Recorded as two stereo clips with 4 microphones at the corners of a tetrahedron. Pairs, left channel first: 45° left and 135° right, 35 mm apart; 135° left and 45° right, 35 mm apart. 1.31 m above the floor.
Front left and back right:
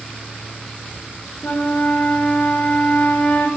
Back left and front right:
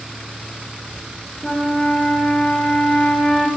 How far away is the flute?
About 1.9 m.